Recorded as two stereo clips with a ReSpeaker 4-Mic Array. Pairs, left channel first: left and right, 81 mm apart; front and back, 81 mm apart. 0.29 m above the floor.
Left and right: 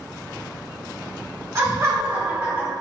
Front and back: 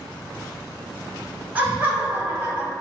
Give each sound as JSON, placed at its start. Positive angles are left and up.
{"t": 1.6, "sound": "laughter", "azimuth_deg": -120, "distance_m": 2.0}